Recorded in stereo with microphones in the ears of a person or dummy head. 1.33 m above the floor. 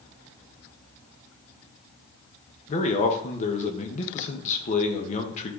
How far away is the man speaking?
About 1.5 m.